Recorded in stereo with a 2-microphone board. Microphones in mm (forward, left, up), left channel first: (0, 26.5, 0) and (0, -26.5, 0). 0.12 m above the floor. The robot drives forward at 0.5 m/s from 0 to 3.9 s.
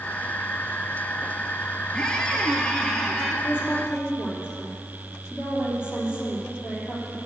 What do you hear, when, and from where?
1.9 s a squeak: 15° left (ahead or behind), 1.2 m; by 3.3 s 10° left (ahead or behind), 1.8 m
3.4 s a woman speaking: 40° left (ahead or behind), 3 m